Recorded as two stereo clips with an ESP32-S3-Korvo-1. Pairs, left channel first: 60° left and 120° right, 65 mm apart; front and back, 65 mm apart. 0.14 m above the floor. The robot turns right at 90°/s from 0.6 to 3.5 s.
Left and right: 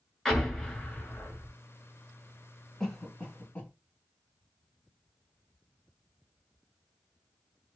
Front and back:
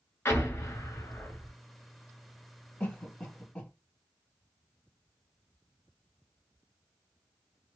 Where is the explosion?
25° right, 0.9 m; by 1.5 s 60° left, 0.9 m.